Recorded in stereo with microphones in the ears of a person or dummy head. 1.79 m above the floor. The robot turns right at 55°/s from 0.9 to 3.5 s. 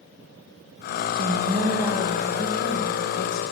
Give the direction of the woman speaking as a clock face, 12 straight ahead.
1 o'clock.